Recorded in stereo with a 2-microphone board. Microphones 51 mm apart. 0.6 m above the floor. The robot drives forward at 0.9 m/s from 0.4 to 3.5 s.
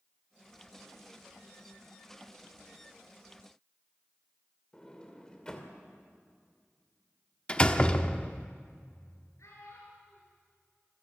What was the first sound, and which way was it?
A sliding door, 15° left (ahead or behind).